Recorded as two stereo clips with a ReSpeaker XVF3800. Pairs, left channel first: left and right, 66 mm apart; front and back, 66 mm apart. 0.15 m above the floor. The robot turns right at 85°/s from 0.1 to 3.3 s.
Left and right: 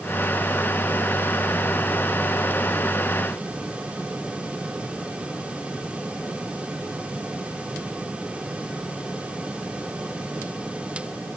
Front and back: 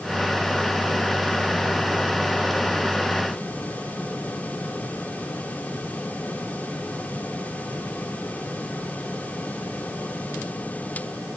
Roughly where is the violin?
I don't hear a violin.